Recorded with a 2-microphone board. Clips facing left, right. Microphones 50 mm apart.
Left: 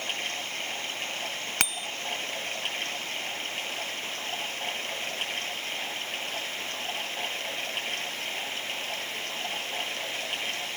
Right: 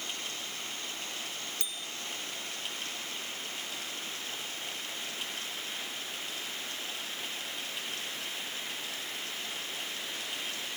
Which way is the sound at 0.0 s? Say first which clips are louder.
Left 6 dB; 55° left (ahead or behind).